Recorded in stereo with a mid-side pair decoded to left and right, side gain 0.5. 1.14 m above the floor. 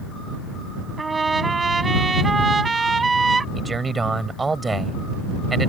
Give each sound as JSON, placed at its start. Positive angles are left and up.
{"t": 1.0, "sound": "a trumpet", "azimuth_deg": -30}
{"t": 3.5, "sound": "a man speaking", "azimuth_deg": -25}